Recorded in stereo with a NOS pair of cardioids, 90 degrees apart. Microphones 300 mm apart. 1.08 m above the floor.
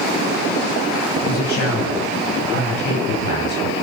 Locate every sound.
1.2 s a man speaking: 70° left, 8 m